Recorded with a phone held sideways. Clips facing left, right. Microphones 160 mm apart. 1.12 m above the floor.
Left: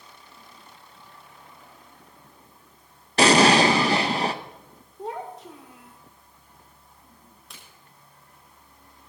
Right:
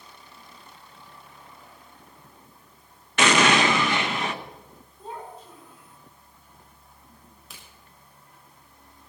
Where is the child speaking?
80° left, 1.9 m.